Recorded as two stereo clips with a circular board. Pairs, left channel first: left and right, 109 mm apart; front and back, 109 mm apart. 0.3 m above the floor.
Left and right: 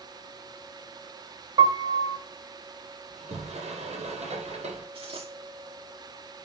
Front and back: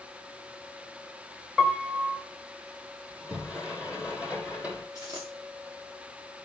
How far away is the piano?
About 1.7 m.